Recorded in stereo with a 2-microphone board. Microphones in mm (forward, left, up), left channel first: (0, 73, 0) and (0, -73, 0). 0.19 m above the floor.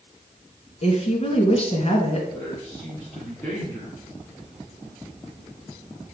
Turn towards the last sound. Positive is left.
turn(degrees=15)  # may be behind; listen again after turning